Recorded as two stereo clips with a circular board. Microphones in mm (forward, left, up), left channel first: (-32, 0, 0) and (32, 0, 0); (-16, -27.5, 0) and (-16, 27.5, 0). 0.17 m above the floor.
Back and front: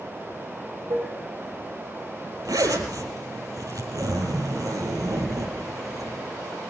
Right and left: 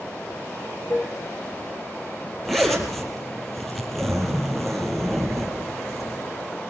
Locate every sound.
0.9 s dishes clattering: 35° right, 3.5 m
2.5 s a zipper: straight ahead, 4 m